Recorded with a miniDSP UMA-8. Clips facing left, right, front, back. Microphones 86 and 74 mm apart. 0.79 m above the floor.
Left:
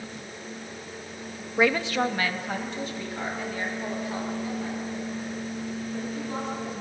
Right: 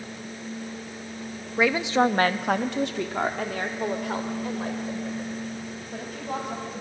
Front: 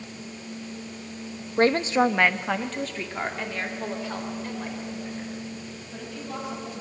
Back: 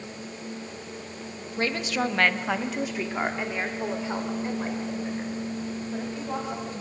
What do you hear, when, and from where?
1.6 s a woman speaking: 5° left, 0.7 m; by 6.7 s 115° right, 5 m